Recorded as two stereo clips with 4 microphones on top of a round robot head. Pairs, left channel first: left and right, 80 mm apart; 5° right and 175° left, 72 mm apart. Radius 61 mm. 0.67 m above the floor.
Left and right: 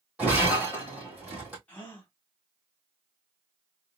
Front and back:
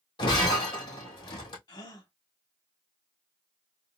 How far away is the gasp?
About 1.0 m.